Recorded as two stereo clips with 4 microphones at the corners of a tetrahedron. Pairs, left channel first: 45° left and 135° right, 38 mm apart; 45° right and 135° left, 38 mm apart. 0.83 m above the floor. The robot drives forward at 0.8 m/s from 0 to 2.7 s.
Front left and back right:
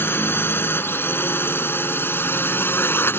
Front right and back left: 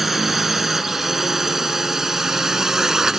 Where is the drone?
50° left; by 3.2 s 55° left.